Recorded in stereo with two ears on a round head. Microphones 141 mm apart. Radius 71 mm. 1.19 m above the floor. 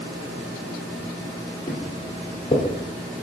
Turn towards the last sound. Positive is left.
turn(degrees=30)  # may be behind; listen again after turning